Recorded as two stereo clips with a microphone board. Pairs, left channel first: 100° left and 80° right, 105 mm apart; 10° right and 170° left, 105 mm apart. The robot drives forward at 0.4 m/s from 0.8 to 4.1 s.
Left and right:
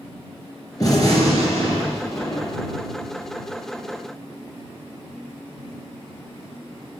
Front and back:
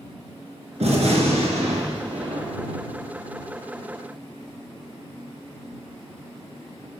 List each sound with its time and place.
0.8 s a gunshot: 155° left, 2.5 m; by 2.8 s 160° left, 3 m